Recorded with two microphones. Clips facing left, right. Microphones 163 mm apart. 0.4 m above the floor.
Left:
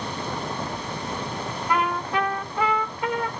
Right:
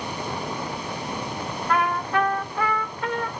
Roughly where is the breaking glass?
I don't hear breaking glass.